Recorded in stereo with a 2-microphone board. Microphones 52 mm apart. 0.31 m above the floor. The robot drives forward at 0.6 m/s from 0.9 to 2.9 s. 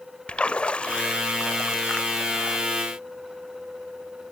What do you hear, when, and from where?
0.3 s a splash: 25° left (ahead or behind), 0.6 m; by 2.6 s 10° left (ahead or behind), 1.1 m